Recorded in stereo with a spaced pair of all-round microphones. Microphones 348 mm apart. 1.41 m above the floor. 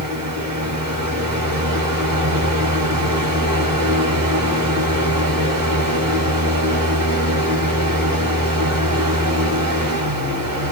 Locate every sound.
0.0 s a fan: 70° right (ahead or behind), 1.6 m